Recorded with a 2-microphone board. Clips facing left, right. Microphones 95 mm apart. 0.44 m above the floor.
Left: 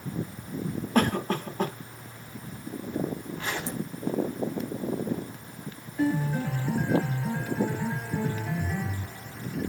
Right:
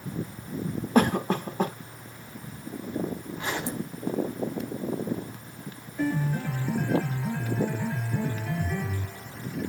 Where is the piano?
15° left (ahead or behind), 4.5 m.